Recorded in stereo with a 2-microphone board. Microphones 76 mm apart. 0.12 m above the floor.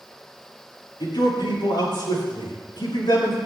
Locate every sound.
1.0 s a man speaking: 80° left, 7.5 m